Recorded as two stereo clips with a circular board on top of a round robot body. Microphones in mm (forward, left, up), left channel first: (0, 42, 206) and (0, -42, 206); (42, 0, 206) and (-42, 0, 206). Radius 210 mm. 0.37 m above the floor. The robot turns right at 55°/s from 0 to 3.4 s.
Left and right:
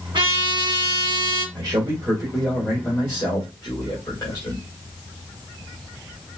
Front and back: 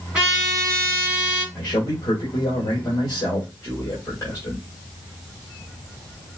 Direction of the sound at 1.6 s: 45° right.